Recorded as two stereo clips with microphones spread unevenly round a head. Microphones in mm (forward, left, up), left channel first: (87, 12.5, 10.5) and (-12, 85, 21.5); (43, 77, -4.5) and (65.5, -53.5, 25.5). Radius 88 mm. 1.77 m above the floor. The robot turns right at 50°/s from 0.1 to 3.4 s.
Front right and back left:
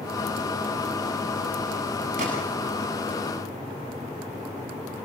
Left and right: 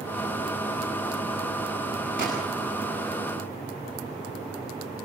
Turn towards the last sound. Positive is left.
turn(degrees=-155)